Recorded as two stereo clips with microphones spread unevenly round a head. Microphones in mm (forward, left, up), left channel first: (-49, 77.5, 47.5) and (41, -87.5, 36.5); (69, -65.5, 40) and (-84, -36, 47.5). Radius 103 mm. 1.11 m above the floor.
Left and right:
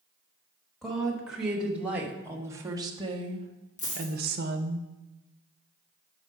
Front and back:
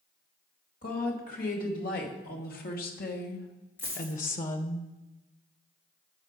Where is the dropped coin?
70° left, 3 m.